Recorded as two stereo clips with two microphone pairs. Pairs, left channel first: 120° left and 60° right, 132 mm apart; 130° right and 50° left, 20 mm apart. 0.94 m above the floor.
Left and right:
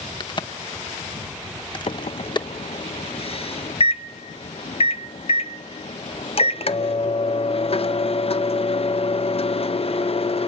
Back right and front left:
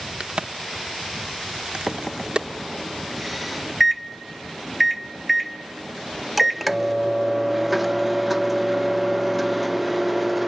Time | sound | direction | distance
0.2 | a crack | 70° left | 0.7 m
1.9 | a microwave | 130° left | 0.5 m